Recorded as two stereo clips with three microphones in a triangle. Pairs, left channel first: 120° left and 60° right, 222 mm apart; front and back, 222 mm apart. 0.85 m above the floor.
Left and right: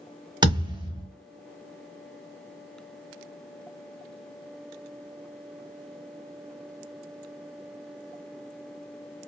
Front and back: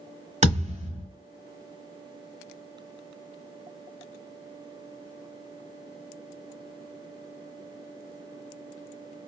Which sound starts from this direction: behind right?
A thud, at 0.4 s.